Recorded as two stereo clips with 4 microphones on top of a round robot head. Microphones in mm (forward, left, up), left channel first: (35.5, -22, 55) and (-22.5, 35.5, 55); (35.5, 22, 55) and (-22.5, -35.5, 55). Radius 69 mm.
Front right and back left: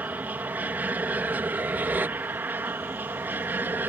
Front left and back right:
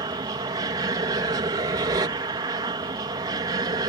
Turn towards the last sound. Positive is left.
turn(degrees=-160)